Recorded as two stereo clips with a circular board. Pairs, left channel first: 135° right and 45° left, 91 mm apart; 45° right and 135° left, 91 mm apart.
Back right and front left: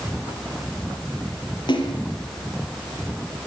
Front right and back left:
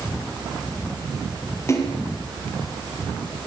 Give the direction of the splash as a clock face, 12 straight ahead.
3 o'clock.